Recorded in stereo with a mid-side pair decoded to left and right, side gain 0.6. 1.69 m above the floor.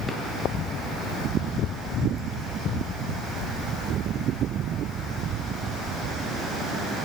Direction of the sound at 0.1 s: 5° right.